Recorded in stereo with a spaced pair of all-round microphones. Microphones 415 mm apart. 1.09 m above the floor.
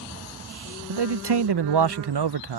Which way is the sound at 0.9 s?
70° right (ahead or behind).